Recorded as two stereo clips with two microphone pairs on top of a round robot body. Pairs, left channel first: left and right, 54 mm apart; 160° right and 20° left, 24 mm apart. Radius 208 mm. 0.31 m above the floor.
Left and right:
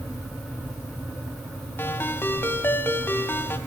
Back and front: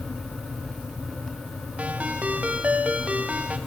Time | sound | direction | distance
1.8 | a ringtone | 45° left | 1.9 m